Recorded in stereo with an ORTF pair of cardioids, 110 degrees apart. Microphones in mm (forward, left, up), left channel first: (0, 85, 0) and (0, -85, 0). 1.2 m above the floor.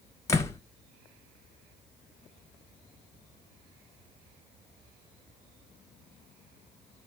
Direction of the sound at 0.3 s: 15° left.